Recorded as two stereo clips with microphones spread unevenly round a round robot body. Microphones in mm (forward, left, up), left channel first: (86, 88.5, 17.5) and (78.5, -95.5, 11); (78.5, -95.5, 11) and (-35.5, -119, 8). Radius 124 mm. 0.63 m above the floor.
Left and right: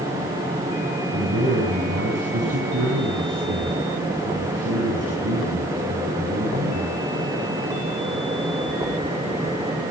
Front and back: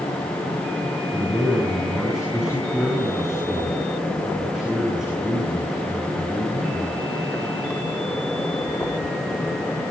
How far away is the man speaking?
About 7 m.